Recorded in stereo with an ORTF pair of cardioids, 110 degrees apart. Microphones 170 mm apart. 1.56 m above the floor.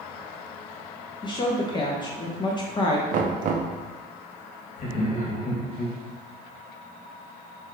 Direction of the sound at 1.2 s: 25° left.